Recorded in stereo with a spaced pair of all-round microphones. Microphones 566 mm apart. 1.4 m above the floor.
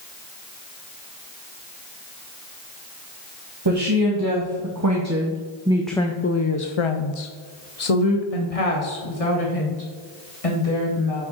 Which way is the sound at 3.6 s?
45° right (ahead or behind).